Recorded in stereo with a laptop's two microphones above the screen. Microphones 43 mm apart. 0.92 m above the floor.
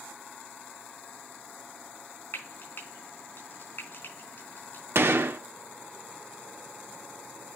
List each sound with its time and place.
2.3 s frying: 55° left (ahead or behind), 4 m
5.0 s a gunshot: 70° right (ahead or behind), 1.1 m